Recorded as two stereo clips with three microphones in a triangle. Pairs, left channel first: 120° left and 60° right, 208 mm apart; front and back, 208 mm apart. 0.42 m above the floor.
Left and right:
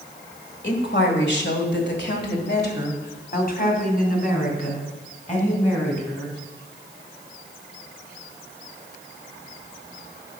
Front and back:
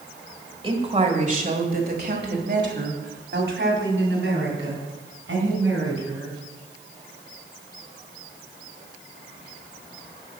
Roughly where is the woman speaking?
Behind left.